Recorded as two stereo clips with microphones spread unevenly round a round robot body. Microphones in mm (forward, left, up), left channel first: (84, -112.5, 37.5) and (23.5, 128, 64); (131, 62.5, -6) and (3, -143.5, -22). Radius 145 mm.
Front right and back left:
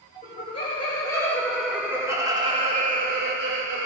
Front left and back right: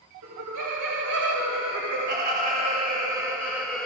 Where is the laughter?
140° right, 2.5 m; by 3.9 s 145° left, 2.5 m.